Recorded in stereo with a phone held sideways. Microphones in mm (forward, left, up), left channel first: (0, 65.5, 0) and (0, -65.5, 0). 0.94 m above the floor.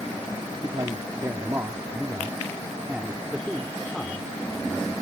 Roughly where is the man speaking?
Right.